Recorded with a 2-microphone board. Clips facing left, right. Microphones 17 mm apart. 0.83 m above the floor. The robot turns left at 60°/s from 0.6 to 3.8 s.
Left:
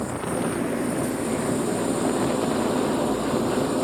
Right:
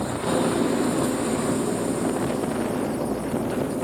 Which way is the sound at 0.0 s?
120° right.